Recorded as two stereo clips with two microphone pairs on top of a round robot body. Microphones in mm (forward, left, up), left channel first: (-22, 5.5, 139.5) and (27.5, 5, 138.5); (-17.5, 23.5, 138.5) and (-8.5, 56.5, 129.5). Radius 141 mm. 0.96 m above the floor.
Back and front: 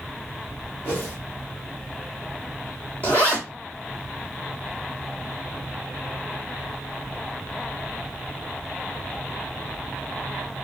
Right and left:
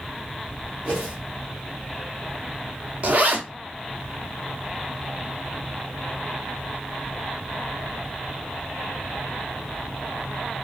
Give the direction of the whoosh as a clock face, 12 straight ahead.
4 o'clock.